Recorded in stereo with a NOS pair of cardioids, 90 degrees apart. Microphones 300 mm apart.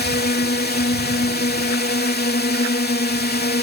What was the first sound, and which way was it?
A drone, 35° left.